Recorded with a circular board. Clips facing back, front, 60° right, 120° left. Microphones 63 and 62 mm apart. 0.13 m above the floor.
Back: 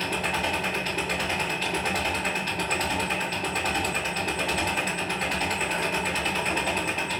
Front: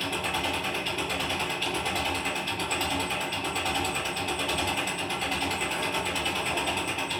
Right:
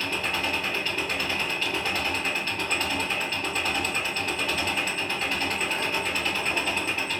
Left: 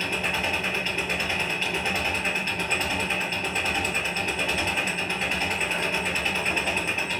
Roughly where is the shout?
No shout in this recording.